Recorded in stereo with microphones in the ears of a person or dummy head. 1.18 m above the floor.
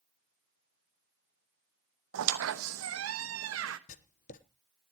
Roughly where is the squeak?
Right.